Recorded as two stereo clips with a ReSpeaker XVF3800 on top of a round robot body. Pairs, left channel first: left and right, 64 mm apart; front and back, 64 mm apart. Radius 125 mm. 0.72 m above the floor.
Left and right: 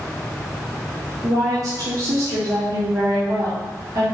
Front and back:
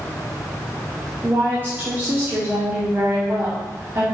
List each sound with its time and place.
1.2 s a woman speaking: 120° right, 1.7 m